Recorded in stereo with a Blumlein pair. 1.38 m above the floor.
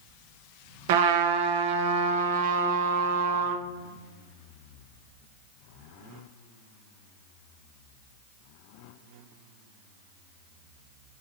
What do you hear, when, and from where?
0.9 s a trumpet: 50° right, 0.7 m